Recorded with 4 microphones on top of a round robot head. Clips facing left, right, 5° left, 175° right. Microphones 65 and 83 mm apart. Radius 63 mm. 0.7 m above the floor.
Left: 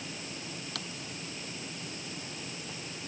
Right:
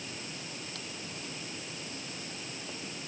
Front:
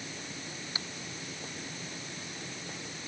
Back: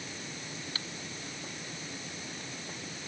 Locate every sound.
0.8 s typing on a keyboard: 75° left